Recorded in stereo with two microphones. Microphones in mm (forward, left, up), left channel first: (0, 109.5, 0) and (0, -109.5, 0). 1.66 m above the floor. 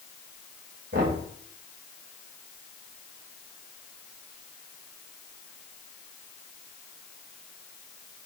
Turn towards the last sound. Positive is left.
turn(degrees=-60)  # may be behind; listen again after turning